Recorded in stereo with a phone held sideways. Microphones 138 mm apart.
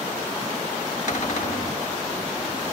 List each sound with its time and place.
1.1 s a cupboard door: 60° left (ahead or behind), 1.8 m